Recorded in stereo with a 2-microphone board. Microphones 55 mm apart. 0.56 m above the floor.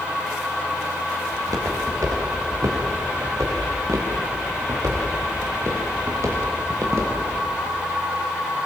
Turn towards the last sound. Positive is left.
turn(degrees=-50)  # may be behind; listen again after turning